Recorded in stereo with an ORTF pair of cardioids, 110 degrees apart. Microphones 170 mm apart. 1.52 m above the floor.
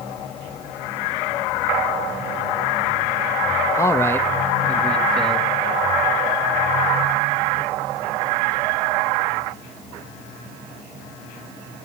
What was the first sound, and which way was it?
A man speaking, 15° left.